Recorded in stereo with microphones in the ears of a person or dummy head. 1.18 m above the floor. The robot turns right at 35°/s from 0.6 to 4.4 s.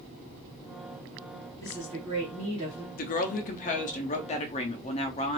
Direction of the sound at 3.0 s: 80° left.